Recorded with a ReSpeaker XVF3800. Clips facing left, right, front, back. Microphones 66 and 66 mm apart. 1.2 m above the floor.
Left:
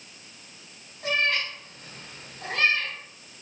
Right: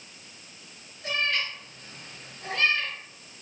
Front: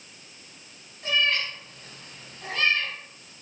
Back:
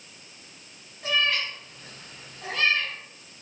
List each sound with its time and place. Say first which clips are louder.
1.0 s a cat meowing: left 3 dB, even; 95° left, 3.5 m